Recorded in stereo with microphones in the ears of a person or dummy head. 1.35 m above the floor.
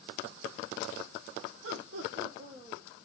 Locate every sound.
1.6 s laughter: 70° right (ahead or behind), 0.9 m; by 2.8 s 10° left (ahead or behind), 0.7 m